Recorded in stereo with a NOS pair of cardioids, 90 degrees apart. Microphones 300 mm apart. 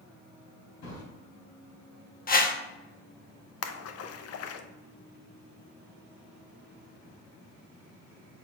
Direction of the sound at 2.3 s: 30° left.